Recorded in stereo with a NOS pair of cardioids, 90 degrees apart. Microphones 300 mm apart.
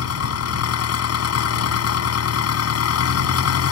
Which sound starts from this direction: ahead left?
An engine running, at 0.0 s.